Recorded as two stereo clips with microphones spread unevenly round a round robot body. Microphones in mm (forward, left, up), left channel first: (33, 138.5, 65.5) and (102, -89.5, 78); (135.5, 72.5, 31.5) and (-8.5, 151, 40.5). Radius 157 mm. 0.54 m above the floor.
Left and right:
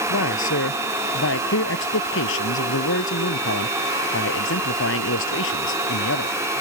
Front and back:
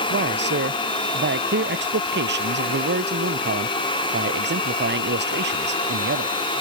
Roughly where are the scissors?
I don't hear scissors.